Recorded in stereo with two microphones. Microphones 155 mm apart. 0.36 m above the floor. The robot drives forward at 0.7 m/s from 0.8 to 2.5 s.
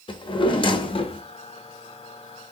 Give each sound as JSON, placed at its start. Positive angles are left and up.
{"t": 0.1, "sound": "a drawer", "side_deg": 35, "distance_m": 0.5}